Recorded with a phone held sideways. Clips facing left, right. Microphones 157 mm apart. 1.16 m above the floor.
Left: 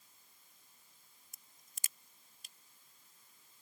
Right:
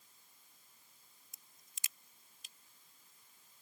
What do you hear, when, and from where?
1.3 s a crack: 50° left (ahead or behind)